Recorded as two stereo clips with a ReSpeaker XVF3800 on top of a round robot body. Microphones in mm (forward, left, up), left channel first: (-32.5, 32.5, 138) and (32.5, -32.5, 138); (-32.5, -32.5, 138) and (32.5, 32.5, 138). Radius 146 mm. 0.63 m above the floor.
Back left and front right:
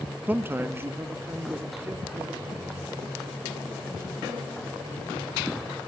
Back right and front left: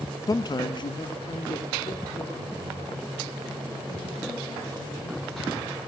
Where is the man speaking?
110° right, 0.7 m.